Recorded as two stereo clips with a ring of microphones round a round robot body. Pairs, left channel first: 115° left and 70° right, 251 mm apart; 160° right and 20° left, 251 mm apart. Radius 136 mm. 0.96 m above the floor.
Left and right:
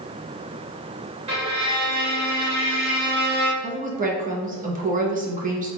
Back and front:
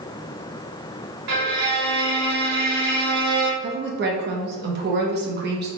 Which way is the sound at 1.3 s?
Straight ahead.